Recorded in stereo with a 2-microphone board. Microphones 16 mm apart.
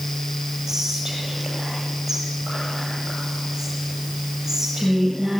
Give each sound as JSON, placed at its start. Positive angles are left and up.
{"t": 0.7, "sound": "whispering", "side_deg": -20, "distance_m": 8.5}